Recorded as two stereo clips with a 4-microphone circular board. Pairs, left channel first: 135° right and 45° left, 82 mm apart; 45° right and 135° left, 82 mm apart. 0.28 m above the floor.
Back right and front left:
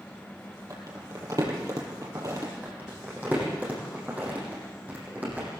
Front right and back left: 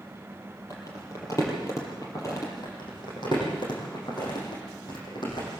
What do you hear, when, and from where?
0.7 s crumpling: straight ahead, 6 m
2.6 s crumpling: 25° right, 8 m